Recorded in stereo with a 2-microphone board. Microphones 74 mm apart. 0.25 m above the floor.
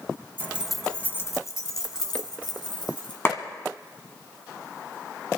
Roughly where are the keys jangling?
Right.